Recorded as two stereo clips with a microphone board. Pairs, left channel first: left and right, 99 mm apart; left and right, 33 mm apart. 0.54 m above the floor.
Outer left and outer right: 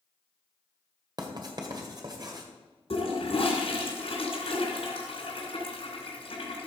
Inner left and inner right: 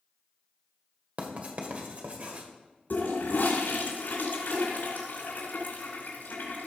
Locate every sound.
1.2 s writing: 45° right (ahead or behind), 1.8 m
2.9 s a toilet flushing: 80° left, 2.5 m